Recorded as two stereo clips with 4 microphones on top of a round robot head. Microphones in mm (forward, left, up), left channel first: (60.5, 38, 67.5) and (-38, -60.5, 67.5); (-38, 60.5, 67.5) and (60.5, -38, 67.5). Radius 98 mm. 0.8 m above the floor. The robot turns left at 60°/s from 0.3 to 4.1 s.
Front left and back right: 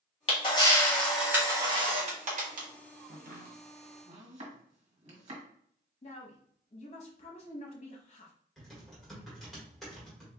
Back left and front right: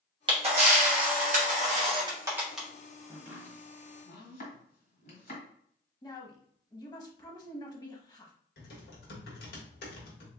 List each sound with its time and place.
0.3 s a camera shutter: 5° left, 1.7 m; by 2.7 s 140° right, 1.7 m
3.1 s chopping: 125° right, 1.6 m; by 5.4 s 175° left, 1.6 m
6.0 s a woman speaking: 75° left, 1.0 m
8.6 s typing on a keyboard: 135° left, 1.7 m